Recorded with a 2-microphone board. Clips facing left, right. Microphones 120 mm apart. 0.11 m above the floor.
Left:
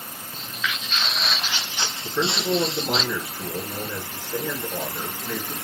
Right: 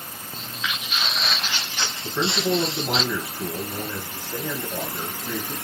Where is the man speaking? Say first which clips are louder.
Right 1 dB; 15° right (ahead or behind), 1.5 m.